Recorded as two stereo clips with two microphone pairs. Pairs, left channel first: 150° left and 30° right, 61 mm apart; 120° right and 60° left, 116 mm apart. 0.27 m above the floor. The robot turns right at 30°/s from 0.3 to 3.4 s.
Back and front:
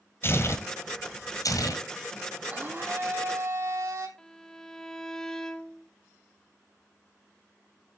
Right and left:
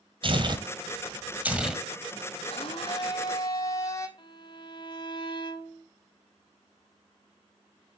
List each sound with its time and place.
0.2 s tearing paper: 100° left, 1.6 m; by 1.8 s 145° left, 1.6 m
2.5 s a blender: 90° right, 2.5 m; by 4.1 s 60° right, 2.5 m
4.2 s a violin: 135° right, 0.8 m